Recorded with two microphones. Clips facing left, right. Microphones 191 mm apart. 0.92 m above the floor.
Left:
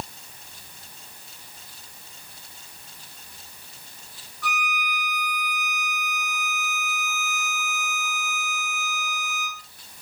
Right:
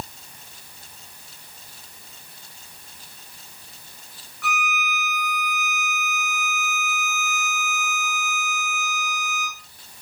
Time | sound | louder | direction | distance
4.4 | a violin | right 2 dB | 35° left (ahead or behind) | 2.5 m